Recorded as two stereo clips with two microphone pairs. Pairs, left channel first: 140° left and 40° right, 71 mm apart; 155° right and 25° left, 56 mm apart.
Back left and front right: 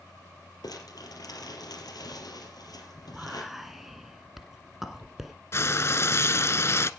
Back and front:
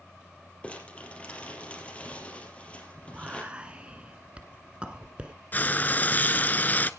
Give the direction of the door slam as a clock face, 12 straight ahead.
No door slam in this recording.